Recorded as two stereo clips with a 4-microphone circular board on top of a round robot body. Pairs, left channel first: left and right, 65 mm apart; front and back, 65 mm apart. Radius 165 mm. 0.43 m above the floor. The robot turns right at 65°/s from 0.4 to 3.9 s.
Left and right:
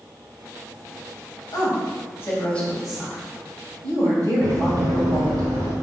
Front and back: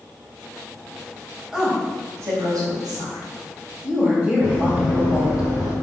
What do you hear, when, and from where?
1.5 s a woman speaking: 95° left, 3.5 m; by 5.4 s 110° right, 3.5 m
4.4 s running footsteps: 120° right, 3.5 m; by 5.7 s 90° right, 2.5 m